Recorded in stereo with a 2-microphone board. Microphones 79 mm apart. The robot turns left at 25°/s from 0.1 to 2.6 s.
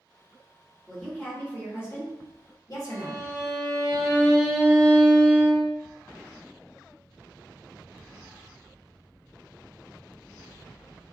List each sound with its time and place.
0.9 s a woman speaking: 175° left, 1.2 m; by 3.2 s 130° left, 1.2 m
2.9 s a violin: centre (ahead or behind), 0.9 m